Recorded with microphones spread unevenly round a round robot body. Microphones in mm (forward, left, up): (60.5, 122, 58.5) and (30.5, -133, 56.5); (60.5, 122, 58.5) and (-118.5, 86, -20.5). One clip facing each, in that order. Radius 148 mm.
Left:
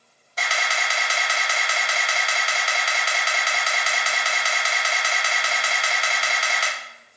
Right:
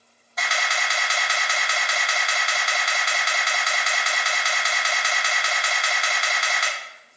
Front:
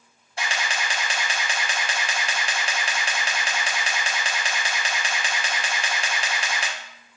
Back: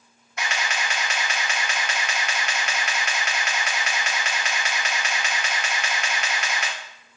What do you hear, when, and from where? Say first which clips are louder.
0.4 s a camera shutter: left 1 dB, even; 85° left, 0.6 m